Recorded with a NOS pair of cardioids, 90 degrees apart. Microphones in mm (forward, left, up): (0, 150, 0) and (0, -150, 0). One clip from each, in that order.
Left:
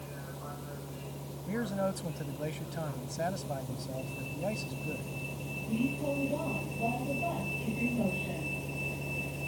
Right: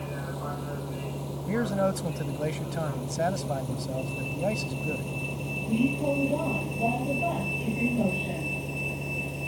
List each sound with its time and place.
0.0 s a vehicle: 60° right; by 9.5 s 30° right
1.5 s a man speaking: 40° right